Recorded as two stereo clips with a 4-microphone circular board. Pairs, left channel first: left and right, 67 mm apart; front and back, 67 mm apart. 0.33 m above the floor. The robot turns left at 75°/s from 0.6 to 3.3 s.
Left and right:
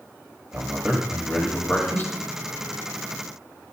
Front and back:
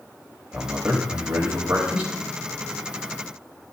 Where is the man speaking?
135° right, 1.5 m; by 2.1 s 110° left, 1.5 m.